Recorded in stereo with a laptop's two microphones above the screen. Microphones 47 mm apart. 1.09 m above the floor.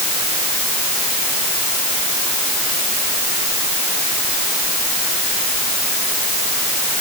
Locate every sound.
Only background noise.